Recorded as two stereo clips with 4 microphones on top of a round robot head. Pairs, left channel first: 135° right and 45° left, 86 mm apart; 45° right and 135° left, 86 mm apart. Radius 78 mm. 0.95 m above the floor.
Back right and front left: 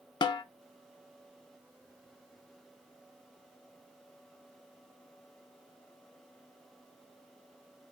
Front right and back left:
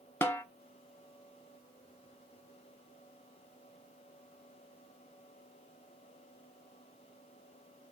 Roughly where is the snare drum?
Right.